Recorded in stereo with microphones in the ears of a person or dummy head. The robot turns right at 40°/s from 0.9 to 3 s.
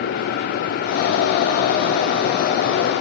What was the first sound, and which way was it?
Only background noise.